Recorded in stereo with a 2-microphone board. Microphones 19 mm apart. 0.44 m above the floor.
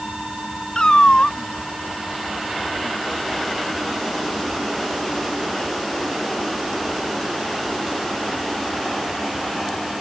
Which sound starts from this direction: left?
A cat meowing, at 0.8 s.